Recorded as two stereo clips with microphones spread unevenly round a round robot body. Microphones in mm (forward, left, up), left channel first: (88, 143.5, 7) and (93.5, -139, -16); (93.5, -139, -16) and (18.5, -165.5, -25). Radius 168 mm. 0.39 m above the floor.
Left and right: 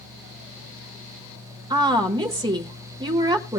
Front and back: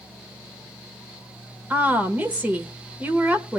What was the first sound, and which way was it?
A woman speaking, 135° right.